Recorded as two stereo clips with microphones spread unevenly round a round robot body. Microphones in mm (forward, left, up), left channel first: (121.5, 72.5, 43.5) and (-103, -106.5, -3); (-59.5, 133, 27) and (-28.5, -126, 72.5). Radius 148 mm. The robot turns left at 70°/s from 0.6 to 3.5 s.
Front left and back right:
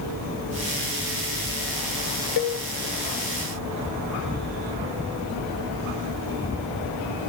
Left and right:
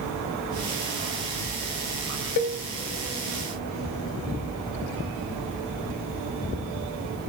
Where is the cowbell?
100° left, 0.6 m; by 2.6 s 80° left, 0.6 m.